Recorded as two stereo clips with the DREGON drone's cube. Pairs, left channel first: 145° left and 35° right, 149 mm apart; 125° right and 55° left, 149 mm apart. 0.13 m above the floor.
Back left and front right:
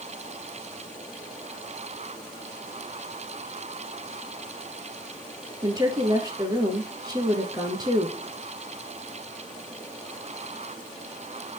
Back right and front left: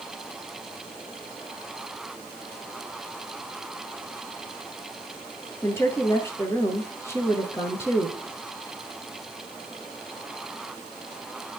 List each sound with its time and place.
5.6 s a woman speaking: 65° right, 1.5 m